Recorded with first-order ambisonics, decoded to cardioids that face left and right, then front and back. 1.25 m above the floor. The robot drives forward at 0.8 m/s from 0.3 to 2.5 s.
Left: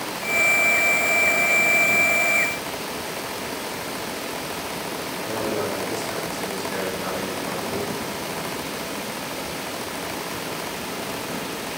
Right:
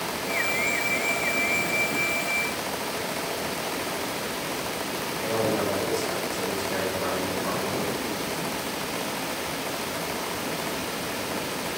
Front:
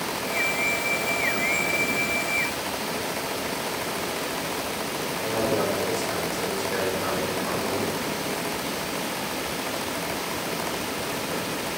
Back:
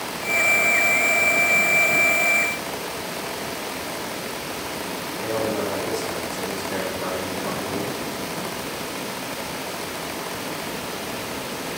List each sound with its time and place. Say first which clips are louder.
5.2 s a man speaking: right 1 dB, even; 160° right, 4 m